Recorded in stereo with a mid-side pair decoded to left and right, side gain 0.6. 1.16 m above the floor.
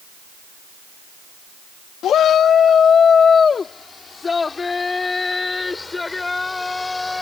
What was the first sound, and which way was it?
A shout, 50° left.